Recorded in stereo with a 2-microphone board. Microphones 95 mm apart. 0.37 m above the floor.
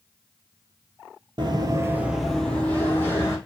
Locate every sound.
1.4 s running footsteps: 55° right (ahead or behind), 0.5 m; by 3.4 s 30° left (ahead or behind), 1.1 m